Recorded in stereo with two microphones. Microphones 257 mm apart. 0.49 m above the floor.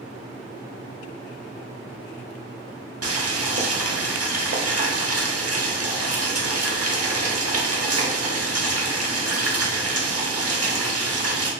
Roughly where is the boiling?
Right.